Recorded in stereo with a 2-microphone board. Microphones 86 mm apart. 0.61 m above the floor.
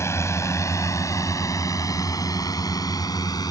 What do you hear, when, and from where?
0.0 s a drone: 30° left (ahead or behind); by 3.5 s 50° left (ahead or behind)